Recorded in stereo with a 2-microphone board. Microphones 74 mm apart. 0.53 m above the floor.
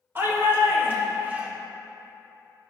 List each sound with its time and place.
0.1 s a shout: 35° right (ahead or behind), 2.5 m; by 1.5 s 20° right (ahead or behind), 1.6 m